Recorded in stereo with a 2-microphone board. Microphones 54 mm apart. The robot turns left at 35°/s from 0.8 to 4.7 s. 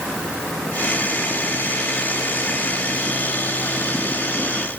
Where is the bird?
I don't hear a bird.